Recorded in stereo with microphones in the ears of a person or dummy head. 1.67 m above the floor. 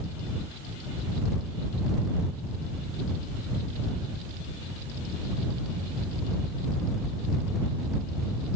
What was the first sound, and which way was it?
Only background noise.